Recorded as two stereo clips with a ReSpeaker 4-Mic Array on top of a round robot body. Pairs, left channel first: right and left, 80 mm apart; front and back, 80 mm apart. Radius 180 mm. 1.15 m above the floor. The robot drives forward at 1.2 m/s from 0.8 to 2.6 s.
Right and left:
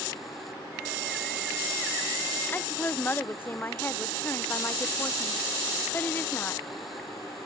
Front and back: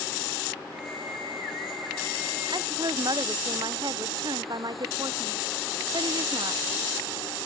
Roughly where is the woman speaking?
Behind right.